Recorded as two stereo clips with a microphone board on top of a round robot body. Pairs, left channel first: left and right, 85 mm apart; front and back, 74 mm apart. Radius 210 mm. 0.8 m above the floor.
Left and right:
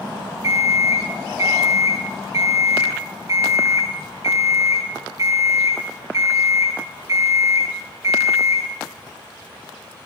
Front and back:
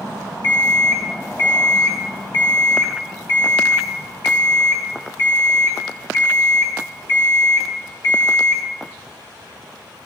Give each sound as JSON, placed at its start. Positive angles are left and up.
{"t": 0.4, "sound": "an alarm clock", "azimuth_deg": -40, "distance_m": 3.5}